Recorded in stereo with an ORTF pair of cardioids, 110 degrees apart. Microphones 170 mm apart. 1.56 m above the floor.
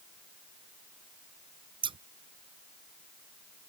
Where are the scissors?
30° right.